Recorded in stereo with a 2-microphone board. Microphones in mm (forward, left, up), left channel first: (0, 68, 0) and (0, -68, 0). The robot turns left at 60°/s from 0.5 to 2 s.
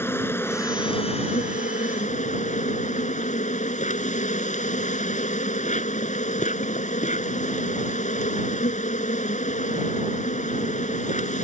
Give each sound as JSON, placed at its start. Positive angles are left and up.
{"t": 0.0, "sound": "an insect", "azimuth_deg": 160}